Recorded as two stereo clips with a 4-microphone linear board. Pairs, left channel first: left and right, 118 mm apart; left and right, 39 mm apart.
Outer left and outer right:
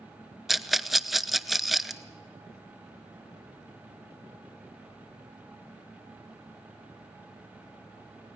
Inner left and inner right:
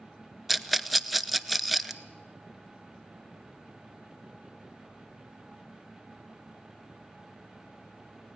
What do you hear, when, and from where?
0.5 s a rattle: centre (ahead or behind), 0.6 m